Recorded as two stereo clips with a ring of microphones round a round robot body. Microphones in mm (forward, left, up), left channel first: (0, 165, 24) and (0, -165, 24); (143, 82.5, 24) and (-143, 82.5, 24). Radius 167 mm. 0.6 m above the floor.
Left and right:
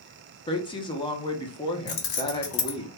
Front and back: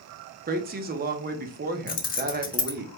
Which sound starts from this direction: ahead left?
Keys jangling, at 1.9 s.